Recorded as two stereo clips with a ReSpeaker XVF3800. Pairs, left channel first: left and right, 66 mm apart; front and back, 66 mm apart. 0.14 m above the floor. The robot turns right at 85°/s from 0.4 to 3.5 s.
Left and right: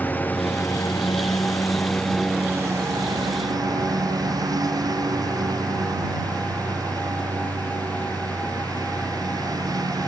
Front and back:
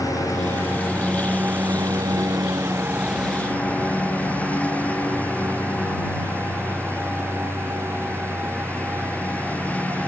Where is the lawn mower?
25° left; by 10.1 s 70° right.